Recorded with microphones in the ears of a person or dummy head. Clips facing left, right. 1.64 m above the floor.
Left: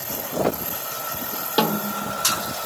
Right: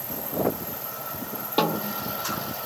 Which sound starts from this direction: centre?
A snare drum, at 1.6 s.